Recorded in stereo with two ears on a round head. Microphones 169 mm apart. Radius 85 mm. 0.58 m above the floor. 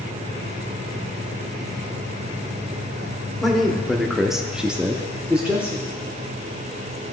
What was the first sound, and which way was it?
A man speaking, centre (ahead or behind).